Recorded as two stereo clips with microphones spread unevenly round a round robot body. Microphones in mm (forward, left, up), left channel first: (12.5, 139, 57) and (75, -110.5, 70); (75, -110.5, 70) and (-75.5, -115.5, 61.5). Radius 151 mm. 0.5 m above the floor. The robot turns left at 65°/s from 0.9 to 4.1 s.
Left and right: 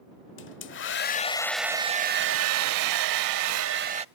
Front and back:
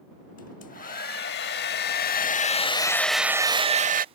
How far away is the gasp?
I don't hear a gasp.